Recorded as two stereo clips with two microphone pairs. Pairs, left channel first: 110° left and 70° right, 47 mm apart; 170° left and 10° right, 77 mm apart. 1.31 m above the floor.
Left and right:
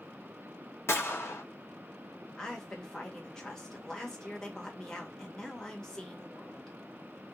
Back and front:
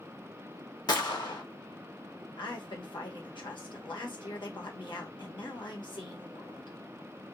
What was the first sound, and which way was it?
A gunshot, 140° left.